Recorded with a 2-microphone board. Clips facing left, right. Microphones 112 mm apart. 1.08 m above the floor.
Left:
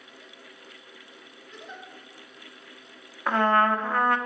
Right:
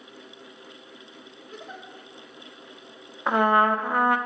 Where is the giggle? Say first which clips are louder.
Right 2 dB; 45° right (ahead or behind), 1.3 m.